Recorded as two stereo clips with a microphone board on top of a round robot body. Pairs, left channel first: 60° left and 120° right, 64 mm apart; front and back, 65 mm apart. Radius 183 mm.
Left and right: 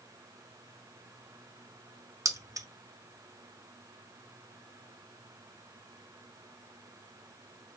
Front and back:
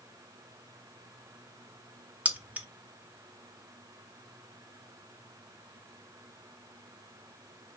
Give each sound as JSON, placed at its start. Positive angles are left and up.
{"t": 2.2, "sound": "keys jangling", "azimuth_deg": -115, "distance_m": 1.3}